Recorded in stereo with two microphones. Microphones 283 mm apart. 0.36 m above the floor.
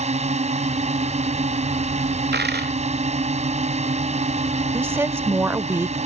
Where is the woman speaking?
10° right (ahead or behind).